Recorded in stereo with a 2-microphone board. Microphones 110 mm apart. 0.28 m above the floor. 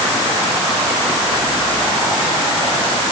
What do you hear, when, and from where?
Only background noise.